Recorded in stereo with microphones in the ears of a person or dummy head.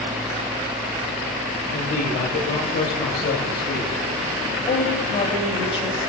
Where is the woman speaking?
30° left (ahead or behind), 9 m.